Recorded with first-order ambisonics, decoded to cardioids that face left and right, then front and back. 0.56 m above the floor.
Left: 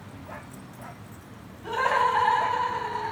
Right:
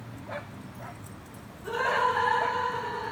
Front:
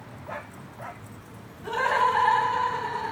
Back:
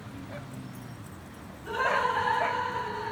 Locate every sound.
1.6 s laughter: 30° left, 1.7 m